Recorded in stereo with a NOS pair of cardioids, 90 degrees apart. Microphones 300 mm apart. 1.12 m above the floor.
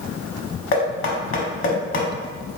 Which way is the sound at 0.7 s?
45° left.